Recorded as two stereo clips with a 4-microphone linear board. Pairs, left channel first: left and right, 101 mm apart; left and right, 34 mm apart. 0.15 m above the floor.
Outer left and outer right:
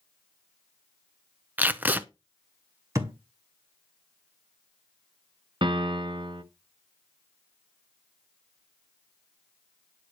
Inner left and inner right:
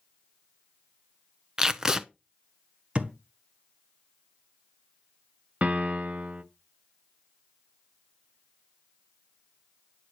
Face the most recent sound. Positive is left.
turn(degrees=-50)  # may be behind; listen again after turning